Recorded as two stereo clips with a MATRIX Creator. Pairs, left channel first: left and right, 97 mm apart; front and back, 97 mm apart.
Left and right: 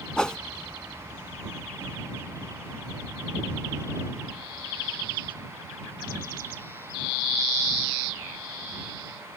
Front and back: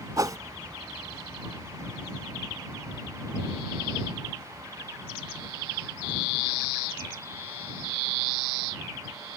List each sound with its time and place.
0.2 s a whoosh: 170° left